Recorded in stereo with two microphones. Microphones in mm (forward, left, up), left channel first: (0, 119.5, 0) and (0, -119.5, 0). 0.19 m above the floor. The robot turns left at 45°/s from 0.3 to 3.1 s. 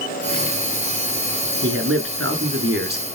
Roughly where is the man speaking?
Right.